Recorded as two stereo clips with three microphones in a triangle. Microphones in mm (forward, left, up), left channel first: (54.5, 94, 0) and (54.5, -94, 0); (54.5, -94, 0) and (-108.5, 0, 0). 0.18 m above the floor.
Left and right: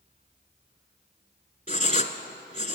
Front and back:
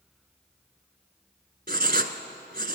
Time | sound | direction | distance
1.7 | writing | 130° left | 1.0 m